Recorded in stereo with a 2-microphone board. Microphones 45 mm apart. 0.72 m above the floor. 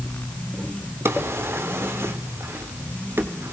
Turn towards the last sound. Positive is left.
turn(degrees=-65)  # may be behind; listen again after turning